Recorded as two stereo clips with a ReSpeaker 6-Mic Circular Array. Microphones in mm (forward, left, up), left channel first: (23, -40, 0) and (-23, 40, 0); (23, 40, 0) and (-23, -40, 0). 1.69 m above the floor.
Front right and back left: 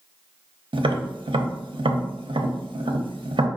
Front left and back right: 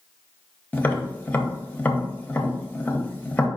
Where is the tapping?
130° left, 0.5 m.